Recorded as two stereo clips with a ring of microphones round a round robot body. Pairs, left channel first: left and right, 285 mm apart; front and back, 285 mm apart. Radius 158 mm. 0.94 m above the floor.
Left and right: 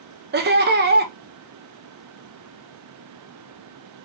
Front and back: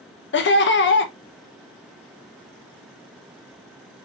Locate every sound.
0.3 s laughter: 40° right, 0.8 m